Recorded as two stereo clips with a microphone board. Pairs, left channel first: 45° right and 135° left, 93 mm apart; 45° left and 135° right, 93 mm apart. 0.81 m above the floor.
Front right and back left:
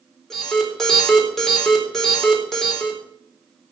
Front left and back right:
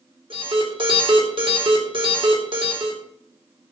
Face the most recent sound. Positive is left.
turn(degrees=-130)